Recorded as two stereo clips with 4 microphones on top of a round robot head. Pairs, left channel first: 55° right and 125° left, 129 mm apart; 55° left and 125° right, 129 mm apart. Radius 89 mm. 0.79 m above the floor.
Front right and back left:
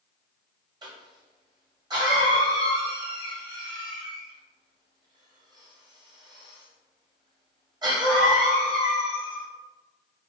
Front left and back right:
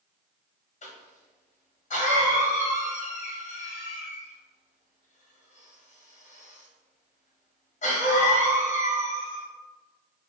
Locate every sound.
0.8 s a cough: 70° left, 1.6 m